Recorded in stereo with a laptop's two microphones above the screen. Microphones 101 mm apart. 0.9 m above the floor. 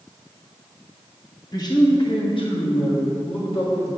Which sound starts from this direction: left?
A man speaking, at 1.5 s.